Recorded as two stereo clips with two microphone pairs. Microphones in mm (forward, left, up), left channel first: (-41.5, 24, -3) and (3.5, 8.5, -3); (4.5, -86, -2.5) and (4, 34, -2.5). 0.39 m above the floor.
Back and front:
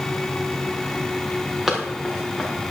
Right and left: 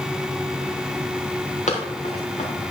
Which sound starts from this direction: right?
Running footsteps, at 1.7 s.